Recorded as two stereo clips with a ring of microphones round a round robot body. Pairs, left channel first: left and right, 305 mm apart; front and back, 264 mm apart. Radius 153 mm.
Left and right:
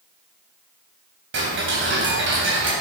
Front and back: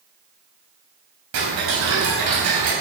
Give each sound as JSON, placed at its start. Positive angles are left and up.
{"t": 1.3, "sound": "ticking", "azimuth_deg": -140, "distance_m": 3.0}